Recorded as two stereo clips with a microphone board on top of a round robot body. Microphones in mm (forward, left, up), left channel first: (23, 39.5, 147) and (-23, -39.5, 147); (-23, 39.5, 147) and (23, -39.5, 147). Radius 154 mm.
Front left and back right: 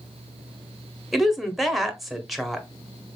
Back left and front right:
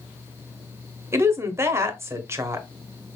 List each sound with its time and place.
1.1 s a woman speaking: 35° right, 1.0 m